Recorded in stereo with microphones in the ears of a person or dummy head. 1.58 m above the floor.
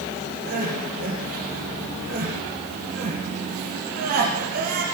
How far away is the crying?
About 7 m.